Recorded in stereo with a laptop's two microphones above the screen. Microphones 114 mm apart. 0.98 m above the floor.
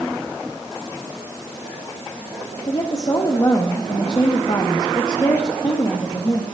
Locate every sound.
2.7 s a woman speaking: 35° left (ahead or behind), 1.2 m